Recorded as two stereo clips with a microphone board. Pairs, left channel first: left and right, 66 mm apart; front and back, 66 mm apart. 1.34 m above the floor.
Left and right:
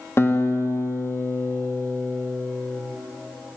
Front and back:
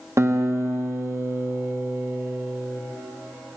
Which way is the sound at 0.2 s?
140° left.